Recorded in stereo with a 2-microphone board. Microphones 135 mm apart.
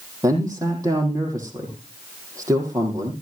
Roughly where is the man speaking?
Right.